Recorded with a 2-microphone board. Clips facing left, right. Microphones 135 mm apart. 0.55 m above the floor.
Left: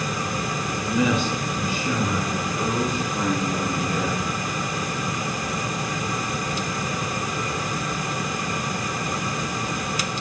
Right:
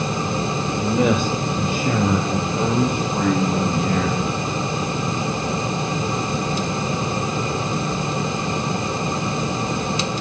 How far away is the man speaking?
About 1.7 m.